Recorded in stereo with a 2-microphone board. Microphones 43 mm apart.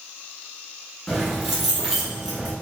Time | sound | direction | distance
1.1 | keys jangling | 5° right (ahead or behind) | 0.9 m